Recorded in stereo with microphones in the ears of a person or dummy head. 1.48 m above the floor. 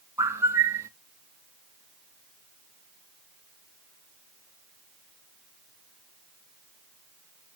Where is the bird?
5° right (ahead or behind), 0.5 m.